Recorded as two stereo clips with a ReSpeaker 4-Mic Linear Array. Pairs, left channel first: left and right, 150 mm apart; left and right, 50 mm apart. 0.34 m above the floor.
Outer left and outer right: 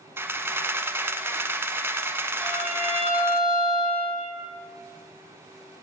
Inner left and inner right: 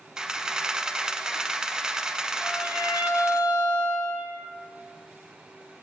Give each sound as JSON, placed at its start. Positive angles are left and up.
{"t": 0.2, "sound": "a camera shutter", "side_deg": -15, "distance_m": 0.9}
{"t": 2.4, "sound": "a violin", "side_deg": -45, "distance_m": 6.0}